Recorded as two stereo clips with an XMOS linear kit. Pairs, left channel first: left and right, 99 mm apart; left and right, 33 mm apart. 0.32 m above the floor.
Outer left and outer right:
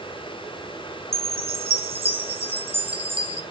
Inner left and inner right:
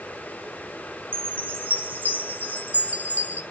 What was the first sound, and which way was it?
A chime, 65° right (ahead or behind).